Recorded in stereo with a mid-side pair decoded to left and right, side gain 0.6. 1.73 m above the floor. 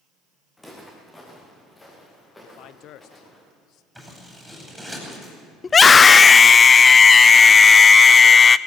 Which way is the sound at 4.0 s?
Straight ahead.